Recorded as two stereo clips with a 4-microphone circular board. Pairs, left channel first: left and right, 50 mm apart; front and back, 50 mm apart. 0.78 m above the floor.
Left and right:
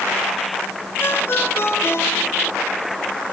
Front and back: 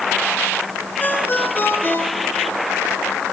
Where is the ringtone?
50° left, 4 m.